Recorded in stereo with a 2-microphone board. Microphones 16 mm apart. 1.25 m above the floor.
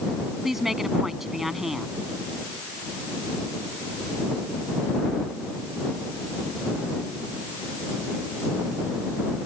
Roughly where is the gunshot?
No gunshot in this recording.